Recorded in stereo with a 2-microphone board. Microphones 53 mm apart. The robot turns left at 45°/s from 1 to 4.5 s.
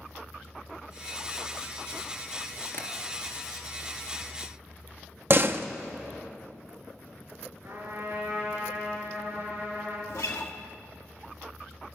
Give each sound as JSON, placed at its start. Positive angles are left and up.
{"t": 2.7, "sound": "tapping", "side_deg": 45, "distance_m": 2.5}
{"t": 5.3, "sound": "a door slam", "side_deg": -50, "distance_m": 0.6}
{"t": 7.6, "sound": "a trumpet", "side_deg": -55, "distance_m": 5.0}
{"t": 10.1, "sound": "a guitar", "side_deg": 70, "distance_m": 1.2}